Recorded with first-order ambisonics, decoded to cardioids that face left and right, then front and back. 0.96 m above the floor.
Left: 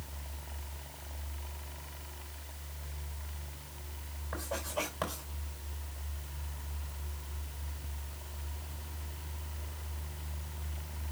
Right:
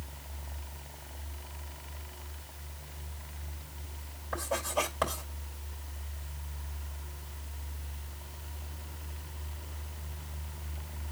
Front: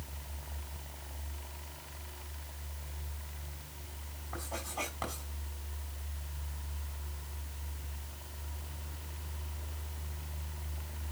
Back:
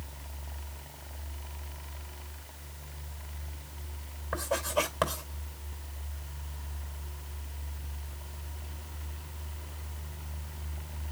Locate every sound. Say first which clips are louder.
4.3 s writing: right 5 dB, back 10 dB; 170° right, 5 m